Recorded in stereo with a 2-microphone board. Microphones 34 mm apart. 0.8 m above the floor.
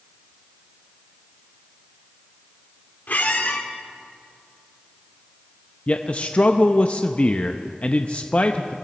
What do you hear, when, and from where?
3.1 s a squeak: 60° left (ahead or behind), 1.6 m
5.9 s a man speaking: 40° left (ahead or behind), 0.6 m